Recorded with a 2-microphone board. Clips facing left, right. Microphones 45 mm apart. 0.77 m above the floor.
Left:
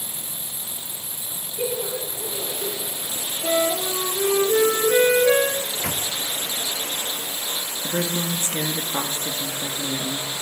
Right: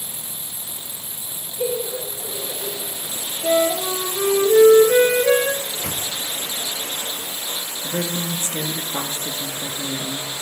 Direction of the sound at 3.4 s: 20° right (ahead or behind).